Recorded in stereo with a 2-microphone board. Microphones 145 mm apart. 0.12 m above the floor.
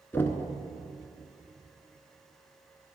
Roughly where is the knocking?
Centre.